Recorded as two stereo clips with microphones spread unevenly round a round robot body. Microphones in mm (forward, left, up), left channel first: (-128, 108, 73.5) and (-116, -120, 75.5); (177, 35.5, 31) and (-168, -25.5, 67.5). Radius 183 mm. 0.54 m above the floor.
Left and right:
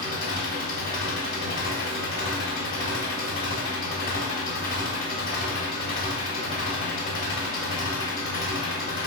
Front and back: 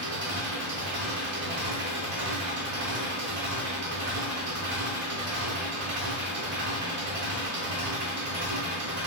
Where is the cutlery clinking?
No cutlery clinking in this recording.